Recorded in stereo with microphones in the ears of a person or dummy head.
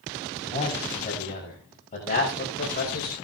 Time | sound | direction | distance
0.5 | a man speaking | 30° left (ahead or behind) | 5.5 m